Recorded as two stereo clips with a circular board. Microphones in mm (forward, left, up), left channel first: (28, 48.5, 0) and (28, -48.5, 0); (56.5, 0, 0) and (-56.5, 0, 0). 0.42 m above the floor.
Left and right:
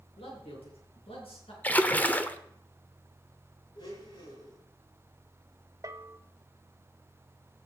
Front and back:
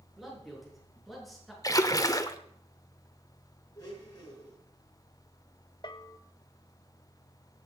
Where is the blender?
55° left, 6.5 m.